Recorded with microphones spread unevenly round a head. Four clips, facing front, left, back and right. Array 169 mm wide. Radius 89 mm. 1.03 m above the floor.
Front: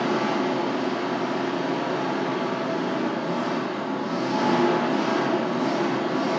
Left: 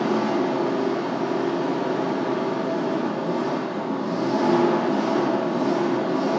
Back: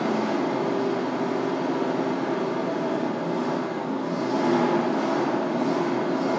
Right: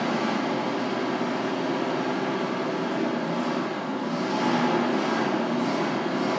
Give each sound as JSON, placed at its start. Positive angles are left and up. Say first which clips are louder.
{"t": 0.0, "sound": "an engine running", "louder": "left 4 dB, front 1 dB", "azimuth_deg": 110, "distance_m": 0.9}